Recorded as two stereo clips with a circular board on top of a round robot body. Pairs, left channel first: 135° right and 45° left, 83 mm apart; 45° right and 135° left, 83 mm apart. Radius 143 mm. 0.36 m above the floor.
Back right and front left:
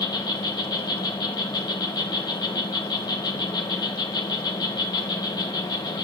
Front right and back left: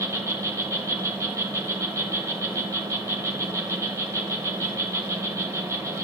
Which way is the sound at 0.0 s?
170° right.